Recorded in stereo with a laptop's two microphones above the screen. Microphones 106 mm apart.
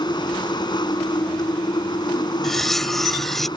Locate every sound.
0.0 s a machine running: 45° left (ahead or behind)
2.4 s cutlery clinking: centre (ahead or behind)